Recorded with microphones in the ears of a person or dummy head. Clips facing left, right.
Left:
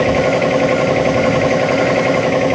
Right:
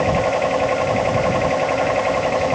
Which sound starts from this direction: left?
A machine running, at 0.0 s.